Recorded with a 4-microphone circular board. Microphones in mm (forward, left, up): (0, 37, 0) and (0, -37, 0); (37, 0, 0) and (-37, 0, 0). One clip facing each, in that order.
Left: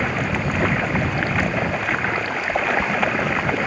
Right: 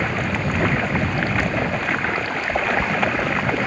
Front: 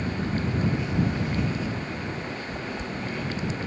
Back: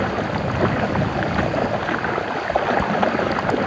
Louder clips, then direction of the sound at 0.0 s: Even, back 7 dB; 175° left.